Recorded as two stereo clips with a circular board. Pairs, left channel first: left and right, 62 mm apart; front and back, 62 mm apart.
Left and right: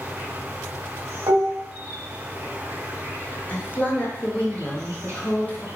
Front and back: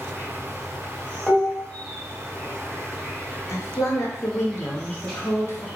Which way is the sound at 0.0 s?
75° right.